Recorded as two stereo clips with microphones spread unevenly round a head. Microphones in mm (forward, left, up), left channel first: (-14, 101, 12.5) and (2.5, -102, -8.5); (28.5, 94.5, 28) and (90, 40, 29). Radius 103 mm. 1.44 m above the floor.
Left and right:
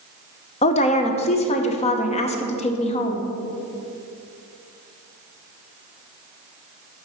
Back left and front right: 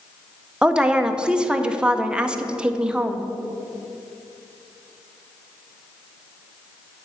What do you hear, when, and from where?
0.6 s a woman speaking: 35° left, 0.7 m